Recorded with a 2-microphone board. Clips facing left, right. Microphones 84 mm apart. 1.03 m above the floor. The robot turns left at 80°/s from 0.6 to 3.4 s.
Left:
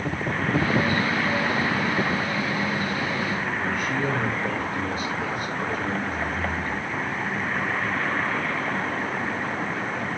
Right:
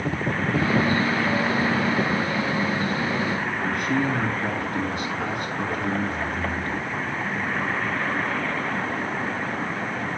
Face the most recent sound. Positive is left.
turn(degrees=-70)  # may be behind; listen again after turning